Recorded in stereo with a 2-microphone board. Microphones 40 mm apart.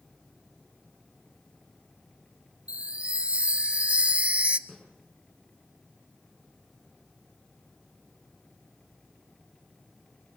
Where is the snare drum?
10° left (ahead or behind), 5.5 m.